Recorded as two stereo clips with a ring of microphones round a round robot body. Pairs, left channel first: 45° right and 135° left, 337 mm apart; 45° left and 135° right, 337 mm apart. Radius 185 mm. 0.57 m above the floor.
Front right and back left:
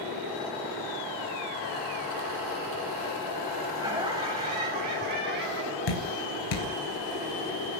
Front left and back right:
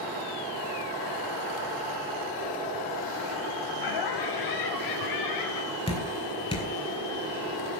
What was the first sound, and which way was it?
Laughter, 55° left.